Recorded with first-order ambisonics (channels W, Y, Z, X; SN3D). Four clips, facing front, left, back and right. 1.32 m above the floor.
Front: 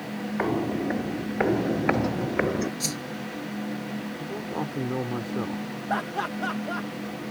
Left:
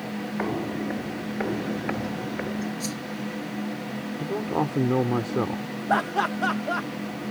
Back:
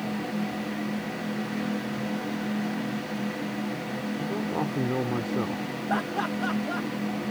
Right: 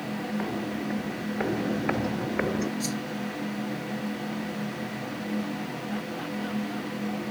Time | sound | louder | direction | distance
0.4 | footsteps | left 3 dB, front 5 dB | 20° left | ?
2.8 | a whoosh | right 1 dB, front 1 dB | straight ahead | ?
4.2 | a man speaking | left 6 dB, back 4 dB | 95° left | ?
5.9 | laughter | left 14 dB, even | 85° left | ?